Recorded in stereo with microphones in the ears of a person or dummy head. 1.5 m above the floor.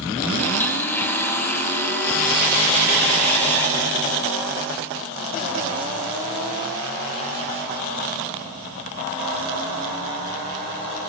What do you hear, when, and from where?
0.4 s a blender: 10° left (ahead or behind), 2.5 m